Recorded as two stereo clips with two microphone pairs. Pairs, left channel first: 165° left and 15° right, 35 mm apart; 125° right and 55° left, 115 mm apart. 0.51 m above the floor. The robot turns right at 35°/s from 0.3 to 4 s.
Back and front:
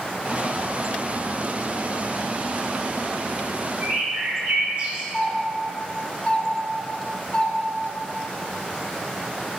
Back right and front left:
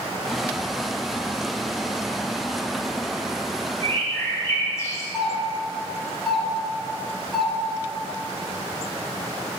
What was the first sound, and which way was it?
A bird, 70° right.